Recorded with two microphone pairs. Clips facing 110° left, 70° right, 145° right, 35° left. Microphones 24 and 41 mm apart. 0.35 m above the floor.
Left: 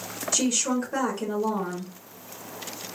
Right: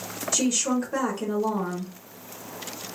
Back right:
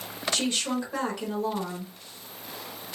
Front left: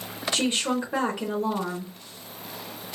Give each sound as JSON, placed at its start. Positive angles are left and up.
{"t": 0.3, "sound": "a woman speaking", "azimuth_deg": 30, "distance_m": 0.8}